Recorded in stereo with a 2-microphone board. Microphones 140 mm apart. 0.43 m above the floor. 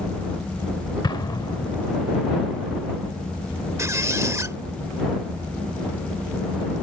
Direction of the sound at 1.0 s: 30° left (ahead or behind).